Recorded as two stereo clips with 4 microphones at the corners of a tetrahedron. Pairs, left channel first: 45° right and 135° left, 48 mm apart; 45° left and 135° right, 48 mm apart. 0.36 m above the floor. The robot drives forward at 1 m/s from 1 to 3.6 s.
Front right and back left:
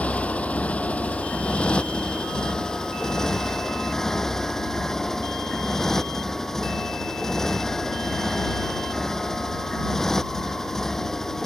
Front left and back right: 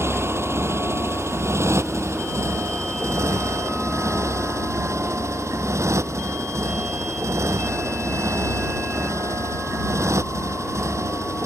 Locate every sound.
0.0 s a motorcycle: 105° right; by 11.5 s 125° right